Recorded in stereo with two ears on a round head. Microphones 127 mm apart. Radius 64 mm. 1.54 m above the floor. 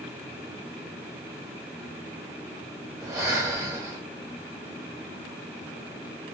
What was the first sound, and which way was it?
Breathing, 25° right (ahead or behind).